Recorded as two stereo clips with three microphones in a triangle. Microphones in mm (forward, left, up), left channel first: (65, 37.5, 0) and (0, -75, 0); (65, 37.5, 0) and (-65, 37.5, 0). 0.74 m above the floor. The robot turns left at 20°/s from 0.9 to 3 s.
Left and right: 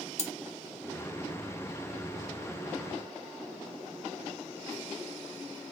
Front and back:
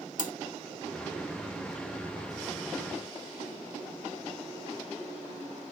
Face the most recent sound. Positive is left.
turn(degrees=-25)